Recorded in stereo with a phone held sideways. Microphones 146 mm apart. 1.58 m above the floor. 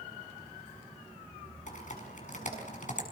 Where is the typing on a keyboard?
60° left (ahead or behind), 6 m.